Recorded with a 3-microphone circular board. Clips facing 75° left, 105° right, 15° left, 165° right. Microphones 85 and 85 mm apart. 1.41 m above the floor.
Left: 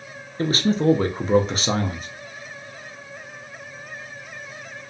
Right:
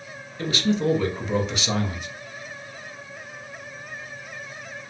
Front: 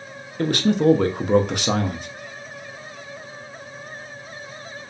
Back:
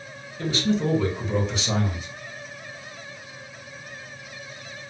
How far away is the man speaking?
About 0.5 m.